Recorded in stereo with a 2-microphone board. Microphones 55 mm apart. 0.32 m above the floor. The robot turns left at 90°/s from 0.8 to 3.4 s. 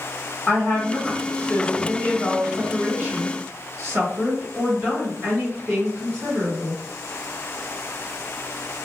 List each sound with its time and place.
0.5 s a woman speaking: 145° left, 1.8 m; by 6.8 s 90° right, 1.8 m